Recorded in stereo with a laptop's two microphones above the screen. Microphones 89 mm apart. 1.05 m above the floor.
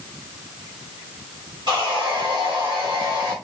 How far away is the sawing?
About 2 m.